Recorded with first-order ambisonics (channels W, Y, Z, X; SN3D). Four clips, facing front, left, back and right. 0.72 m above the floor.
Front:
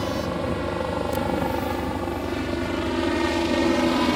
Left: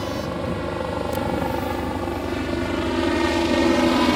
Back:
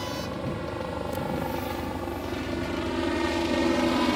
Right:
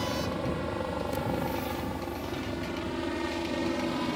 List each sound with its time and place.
0.0 s a helicopter: 35° left; by 4.2 s 75° left